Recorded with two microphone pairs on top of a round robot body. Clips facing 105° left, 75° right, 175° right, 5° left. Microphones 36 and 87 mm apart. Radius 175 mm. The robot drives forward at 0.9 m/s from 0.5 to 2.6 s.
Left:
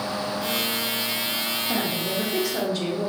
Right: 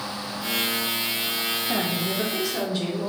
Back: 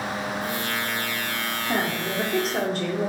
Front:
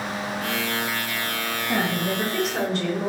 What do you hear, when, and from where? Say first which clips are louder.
1.7 s a woman speaking: left 1 dB, front 2 dB; 145° right, 1.7 m; by 3.1 s 160° right, 2 m